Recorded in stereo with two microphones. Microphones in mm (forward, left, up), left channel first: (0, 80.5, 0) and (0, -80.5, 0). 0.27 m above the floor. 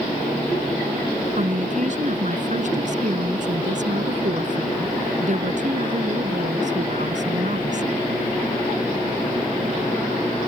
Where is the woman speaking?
55° right (ahead or behind).